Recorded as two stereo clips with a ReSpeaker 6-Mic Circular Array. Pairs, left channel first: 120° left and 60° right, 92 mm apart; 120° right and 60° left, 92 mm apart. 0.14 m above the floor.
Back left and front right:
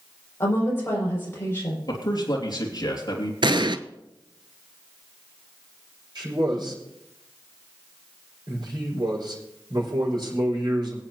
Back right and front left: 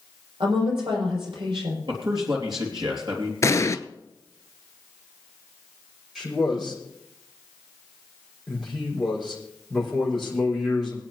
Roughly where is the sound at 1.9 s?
Left.